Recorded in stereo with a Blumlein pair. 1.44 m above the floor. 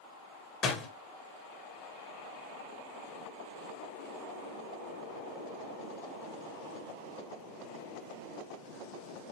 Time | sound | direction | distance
0.6 | a door slam | 30° left | 1.2 m